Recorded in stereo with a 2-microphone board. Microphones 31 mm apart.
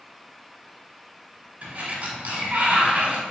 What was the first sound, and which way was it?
A sliding door, 50° right (ahead or behind).